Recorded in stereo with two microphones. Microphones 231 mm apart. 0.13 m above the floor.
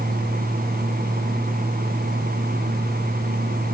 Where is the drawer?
No drawer in this recording.